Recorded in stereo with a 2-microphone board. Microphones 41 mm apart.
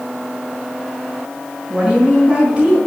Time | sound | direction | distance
1.7 | a woman speaking | 15° right (ahead or behind) | 4.5 m